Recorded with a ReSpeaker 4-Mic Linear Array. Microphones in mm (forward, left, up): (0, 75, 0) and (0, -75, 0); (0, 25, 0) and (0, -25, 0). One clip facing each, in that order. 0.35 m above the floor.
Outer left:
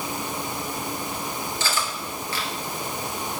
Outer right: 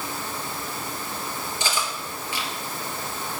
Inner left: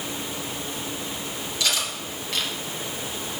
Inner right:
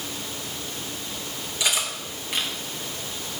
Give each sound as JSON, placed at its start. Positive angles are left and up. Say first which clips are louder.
{"t": 1.6, "sound": "cutlery clinking", "louder": "outer right 2 dB, inner right 1 dB", "side_deg": -15, "distance_m": 3.0}